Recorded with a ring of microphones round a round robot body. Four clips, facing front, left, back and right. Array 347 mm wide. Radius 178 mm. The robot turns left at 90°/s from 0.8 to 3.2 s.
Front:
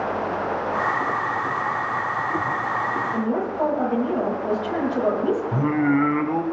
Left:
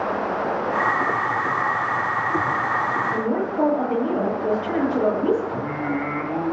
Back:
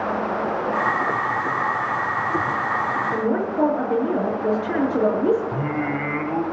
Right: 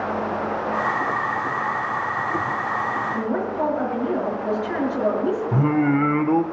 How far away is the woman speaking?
About 9 m.